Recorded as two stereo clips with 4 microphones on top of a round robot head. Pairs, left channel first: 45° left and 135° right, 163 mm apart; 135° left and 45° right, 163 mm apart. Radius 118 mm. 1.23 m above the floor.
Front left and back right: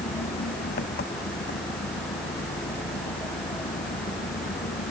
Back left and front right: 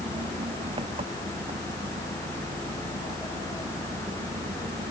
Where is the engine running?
15° left.